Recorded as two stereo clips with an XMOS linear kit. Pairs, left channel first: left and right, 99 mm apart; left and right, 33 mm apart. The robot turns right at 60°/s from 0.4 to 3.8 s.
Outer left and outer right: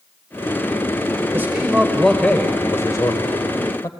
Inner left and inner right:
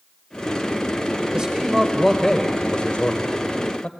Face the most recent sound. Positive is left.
turn(degrees=110)